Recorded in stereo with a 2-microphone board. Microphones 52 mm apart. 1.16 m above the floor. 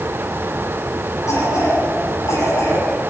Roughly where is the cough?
Left.